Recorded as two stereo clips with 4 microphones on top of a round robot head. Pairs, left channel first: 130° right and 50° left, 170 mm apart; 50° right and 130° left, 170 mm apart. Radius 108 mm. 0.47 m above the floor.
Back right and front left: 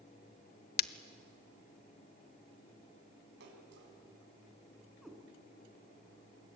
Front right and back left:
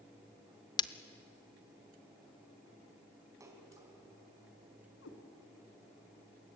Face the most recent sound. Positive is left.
turn(degrees=-40)